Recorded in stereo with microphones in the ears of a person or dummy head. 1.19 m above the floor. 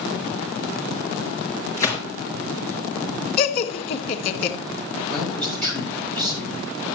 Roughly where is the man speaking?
Centre.